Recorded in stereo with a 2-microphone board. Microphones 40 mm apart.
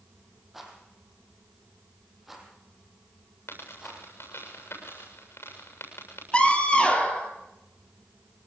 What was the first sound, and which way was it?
A rattle, 5° right (ahead or behind).